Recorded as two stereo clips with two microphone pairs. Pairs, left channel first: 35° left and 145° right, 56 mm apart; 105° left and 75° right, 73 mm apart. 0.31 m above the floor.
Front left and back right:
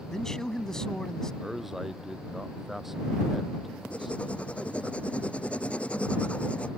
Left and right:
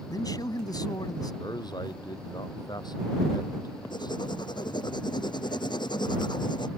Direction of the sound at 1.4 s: 130° left.